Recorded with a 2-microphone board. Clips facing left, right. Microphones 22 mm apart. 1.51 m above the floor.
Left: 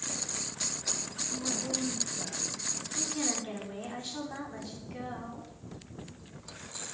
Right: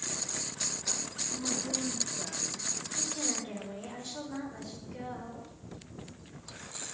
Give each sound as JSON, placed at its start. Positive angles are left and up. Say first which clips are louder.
{"t": 1.3, "sound": "a woman speaking", "louder": "even", "side_deg": 40, "distance_m": 1.7}
{"t": 3.0, "sound": "a woman speaking", "louder": "left 2 dB", "side_deg": 75, "distance_m": 5.5}